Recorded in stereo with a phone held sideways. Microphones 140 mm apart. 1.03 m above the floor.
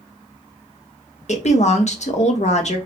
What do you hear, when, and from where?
1.3 s a woman speaking: 55° left (ahead or behind), 1.1 m